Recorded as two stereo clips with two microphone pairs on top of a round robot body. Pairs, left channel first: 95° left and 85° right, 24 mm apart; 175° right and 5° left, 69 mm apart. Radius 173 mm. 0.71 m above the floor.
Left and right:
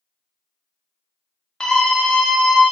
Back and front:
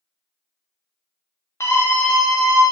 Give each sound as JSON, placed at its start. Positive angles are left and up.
{"t": 1.6, "sound": "a scream", "azimuth_deg": 150, "distance_m": 1.0}